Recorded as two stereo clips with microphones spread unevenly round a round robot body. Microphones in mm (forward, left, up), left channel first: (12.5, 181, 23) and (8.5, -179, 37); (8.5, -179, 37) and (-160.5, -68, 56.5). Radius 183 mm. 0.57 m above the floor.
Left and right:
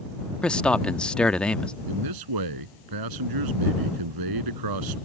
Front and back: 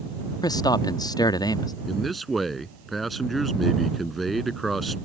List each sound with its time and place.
0.4 s a man speaking: 10° left
1.9 s a man speaking: 125° right